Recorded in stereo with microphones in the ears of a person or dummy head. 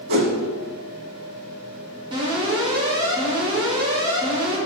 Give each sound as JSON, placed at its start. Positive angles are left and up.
{"t": 0.1, "sound": "a whoosh", "side_deg": -60, "distance_m": 1.5}
{"t": 2.1, "sound": "an alarm", "side_deg": -35, "distance_m": 3.5}